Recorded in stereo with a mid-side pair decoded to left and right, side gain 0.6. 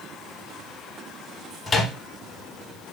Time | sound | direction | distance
1.7 | a microwave | 25° left | 0.9 m